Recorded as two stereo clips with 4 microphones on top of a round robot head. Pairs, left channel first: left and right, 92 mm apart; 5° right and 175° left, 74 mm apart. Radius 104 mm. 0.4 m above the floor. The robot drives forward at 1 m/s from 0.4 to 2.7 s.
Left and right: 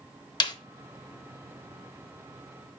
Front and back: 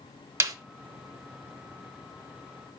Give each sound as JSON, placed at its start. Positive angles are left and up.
{"t": 0.4, "sound": "a snare drum", "azimuth_deg": 125, "distance_m": 0.9}